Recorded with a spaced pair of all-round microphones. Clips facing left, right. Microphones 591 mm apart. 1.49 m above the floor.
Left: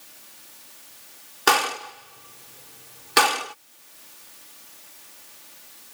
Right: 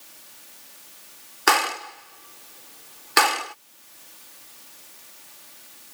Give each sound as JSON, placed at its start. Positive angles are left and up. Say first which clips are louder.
{"t": 1.5, "sound": "a gunshot", "louder": "left 1 dB", "side_deg": 55}